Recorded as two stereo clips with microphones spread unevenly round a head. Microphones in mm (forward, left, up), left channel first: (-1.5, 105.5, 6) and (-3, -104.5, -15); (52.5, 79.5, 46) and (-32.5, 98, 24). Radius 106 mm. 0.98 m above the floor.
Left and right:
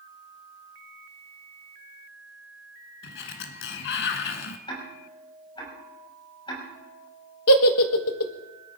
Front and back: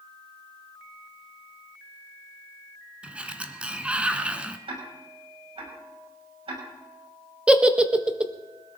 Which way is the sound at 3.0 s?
85° left.